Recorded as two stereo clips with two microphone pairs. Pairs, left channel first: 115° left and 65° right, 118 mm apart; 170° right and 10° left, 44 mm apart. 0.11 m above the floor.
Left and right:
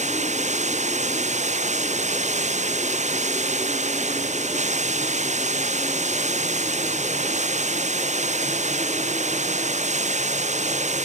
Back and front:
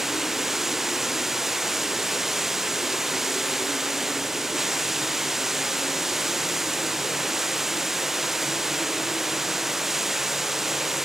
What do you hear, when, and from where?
0.0 s running water: 75° right